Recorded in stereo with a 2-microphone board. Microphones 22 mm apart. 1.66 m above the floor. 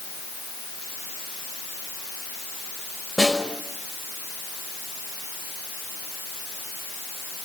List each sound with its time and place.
3.2 s a snare drum: 15° left (ahead or behind), 5.5 m